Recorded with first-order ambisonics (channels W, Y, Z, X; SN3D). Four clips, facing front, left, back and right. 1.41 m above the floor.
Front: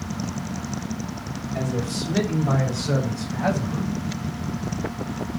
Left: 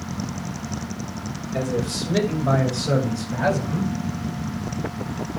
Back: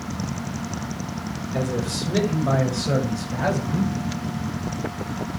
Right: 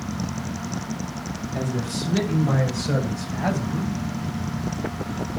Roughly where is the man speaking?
Behind left.